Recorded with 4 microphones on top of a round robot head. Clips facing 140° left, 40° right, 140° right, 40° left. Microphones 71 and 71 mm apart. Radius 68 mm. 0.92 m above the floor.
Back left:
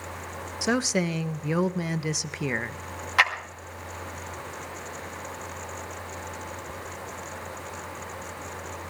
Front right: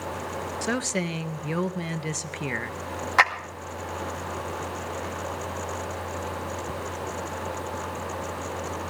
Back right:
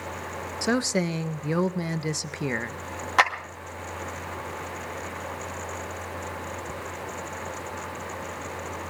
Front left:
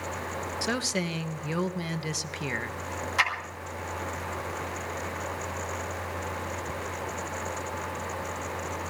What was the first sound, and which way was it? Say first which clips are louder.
A woman speaking: back left 4 dB, back right 7 dB; 160° right.